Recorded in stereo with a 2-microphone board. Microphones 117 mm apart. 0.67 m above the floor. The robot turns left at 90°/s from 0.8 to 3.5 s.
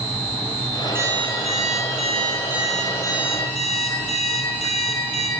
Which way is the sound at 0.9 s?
20° right.